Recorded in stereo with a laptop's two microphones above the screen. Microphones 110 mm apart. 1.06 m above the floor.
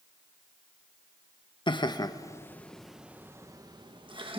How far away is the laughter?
About 1.2 m.